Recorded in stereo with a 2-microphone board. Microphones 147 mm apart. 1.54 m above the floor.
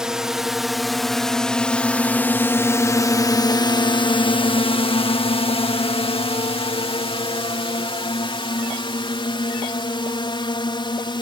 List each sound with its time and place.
0.0 s a drone: 5° right (ahead or behind); by 11.2 s 30° left (ahead or behind)